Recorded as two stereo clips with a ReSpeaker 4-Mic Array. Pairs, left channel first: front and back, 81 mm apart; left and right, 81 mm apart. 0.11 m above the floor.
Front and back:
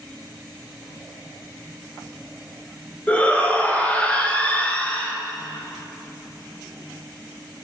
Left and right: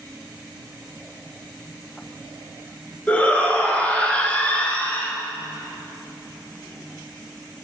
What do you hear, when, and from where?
3.1 s a shout: 45° left, 1.2 m